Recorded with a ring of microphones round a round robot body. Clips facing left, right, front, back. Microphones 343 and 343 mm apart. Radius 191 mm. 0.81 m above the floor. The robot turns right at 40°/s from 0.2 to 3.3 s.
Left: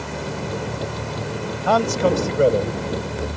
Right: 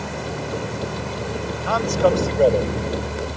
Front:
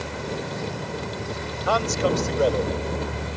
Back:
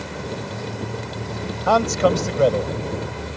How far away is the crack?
No crack in this recording.